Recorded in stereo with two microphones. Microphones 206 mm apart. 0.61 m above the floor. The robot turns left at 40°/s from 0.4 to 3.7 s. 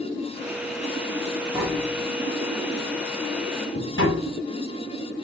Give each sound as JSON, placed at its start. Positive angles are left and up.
{"t": 1.5, "sound": "tapping", "side_deg": -15, "distance_m": 4.5}